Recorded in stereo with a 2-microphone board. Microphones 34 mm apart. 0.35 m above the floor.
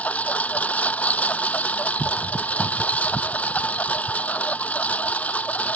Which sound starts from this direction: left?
A lawn mower, at 0.0 s.